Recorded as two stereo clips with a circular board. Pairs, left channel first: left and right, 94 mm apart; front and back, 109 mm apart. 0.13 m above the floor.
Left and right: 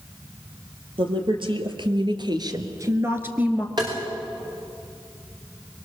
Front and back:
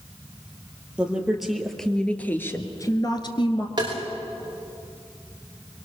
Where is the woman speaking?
100° right, 3 m; by 3.7 s 15° right, 1.9 m.